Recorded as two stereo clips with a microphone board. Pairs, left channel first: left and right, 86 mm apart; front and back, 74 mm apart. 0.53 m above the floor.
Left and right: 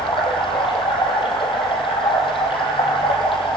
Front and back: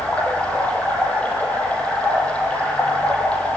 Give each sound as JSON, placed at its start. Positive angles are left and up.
{"t": 0.0, "sound": "running water", "azimuth_deg": 75, "distance_m": 4.0}